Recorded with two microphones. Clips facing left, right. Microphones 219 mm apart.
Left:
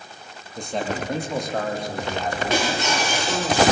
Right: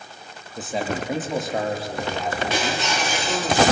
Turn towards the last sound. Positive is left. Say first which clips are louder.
# left 2 dB
turn(degrees=50)  # may be behind; listen again after turning